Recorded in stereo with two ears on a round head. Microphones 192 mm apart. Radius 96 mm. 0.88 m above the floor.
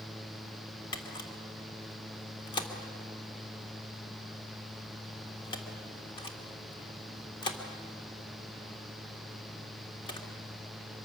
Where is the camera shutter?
20° left (ahead or behind), 1.8 m.